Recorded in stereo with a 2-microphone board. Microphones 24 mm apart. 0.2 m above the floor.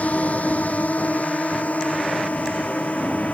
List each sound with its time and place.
0.0 s a drone: 80° left; by 3.4 s 85° left